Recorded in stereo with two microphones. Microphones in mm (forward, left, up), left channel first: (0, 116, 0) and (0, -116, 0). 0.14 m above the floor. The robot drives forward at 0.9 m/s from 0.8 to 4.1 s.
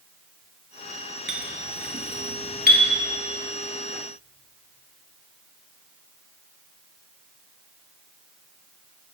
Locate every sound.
1.3 s a clink: 60° right (ahead or behind), 1.3 m; by 2.8 s 40° right (ahead or behind), 1.7 m